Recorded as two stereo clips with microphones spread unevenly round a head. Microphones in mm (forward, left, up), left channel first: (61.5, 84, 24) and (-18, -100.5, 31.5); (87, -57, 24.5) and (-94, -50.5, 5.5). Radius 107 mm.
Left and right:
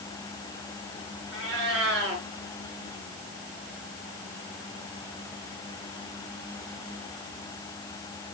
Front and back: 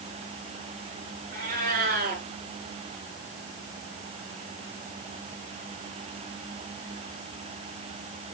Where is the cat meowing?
145° right, 6.5 m.